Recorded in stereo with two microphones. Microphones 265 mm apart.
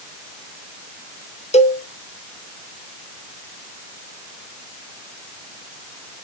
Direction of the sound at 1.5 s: 25° left (ahead or behind).